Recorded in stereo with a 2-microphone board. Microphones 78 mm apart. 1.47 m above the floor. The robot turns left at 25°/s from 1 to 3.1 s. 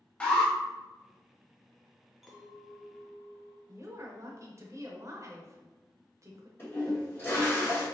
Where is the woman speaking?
40° right (ahead or behind), 0.8 m.